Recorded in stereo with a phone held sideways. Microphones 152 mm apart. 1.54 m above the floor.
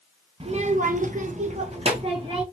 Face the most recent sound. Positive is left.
turn(degrees=-35)  # may be behind; listen again after turning